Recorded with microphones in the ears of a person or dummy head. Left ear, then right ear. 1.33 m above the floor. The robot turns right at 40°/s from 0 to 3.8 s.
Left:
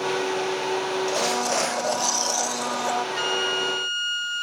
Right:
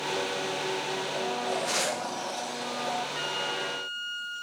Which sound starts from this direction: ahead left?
A blender, at 1.1 s.